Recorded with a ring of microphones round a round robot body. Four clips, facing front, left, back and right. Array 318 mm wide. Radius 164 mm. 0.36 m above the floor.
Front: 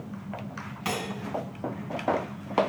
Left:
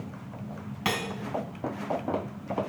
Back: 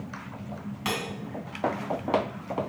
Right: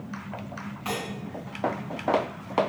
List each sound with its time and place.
0.8 s cutlery clinking: 95° left, 1.8 m